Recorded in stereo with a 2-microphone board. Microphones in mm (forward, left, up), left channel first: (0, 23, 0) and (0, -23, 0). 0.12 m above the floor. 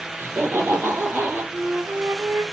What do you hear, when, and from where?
0.2 s laughter: 55° right (ahead or behind), 3.5 m; by 1.4 s 40° right (ahead or behind), 2.5 m
1.5 s a flute: 55° right (ahead or behind), 0.6 m